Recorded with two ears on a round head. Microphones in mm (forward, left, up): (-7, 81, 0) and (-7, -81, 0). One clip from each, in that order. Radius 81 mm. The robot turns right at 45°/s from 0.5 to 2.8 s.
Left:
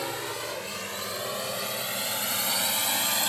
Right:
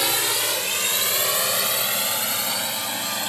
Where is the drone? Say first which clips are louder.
Right 10 dB; 75° right (ahead or behind); by 3.3 s 20° left (ahead or behind).